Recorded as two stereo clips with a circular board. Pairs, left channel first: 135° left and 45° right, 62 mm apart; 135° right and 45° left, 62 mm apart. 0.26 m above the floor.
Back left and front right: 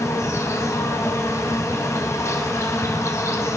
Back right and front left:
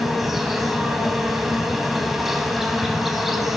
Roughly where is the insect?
Behind left.